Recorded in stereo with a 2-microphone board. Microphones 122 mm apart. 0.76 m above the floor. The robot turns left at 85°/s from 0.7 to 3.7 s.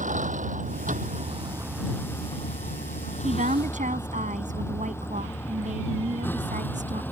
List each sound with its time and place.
0.0 s a vehicle: 75° right (ahead or behind); by 7.1 s 15° left (ahead or behind)
3.2 s a woman speaking: 65° right; by 7.0 s 100° right